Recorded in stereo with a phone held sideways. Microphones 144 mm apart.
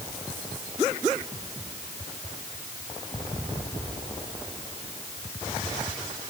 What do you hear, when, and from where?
Only background noise.